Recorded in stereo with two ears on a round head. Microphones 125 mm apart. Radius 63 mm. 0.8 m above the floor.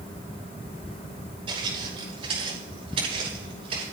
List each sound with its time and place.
1.5 s footsteps: 40° right (ahead or behind), 7.5 m; by 3.8 s 45° right (ahead or behind), 8.5 m